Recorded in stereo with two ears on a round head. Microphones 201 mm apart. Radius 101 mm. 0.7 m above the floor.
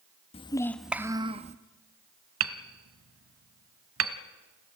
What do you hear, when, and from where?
0.3 s a child speaking: 25° left (ahead or behind), 0.6 m; by 1.6 s 30° right (ahead or behind), 0.8 m
2.4 s hammering: 65° right (ahead or behind), 1.1 m